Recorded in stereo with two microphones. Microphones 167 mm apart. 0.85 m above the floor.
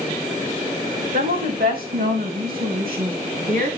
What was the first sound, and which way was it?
A woman speaking, 70° right (ahead or behind).